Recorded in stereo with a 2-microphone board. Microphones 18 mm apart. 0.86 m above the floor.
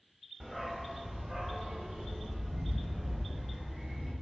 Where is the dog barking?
10° right (ahead or behind), 0.6 m; by 4.1 s 80° right, 2.0 m.